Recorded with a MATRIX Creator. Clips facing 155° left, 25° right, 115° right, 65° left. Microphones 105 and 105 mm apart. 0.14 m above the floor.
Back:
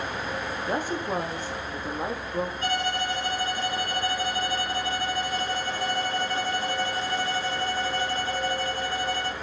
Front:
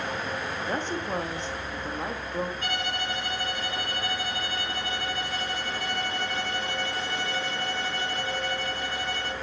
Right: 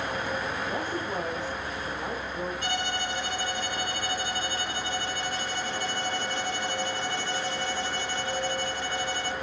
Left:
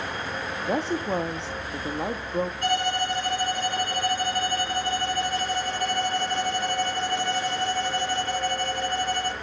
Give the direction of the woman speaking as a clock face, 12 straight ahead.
9 o'clock.